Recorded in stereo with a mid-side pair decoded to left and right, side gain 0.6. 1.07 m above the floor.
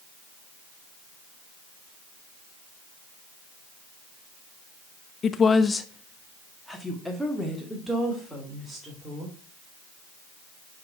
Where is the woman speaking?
40° left, 0.7 m; by 9.3 s 10° right, 3.5 m.